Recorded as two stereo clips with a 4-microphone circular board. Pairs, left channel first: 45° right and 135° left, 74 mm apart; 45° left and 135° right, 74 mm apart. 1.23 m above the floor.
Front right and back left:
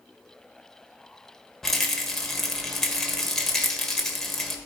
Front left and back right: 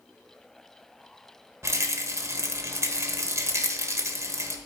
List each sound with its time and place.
1.6 s a rattle: 130° right, 1.1 m